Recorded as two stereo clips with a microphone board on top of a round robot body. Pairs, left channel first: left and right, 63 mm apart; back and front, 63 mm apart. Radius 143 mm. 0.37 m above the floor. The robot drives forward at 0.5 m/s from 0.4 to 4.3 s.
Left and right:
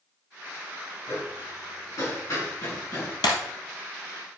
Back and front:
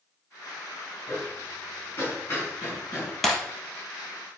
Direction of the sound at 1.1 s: 120° left.